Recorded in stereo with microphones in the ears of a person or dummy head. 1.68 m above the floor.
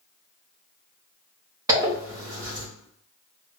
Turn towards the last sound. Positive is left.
turn(degrees=-15)  # may be behind; listen again after turning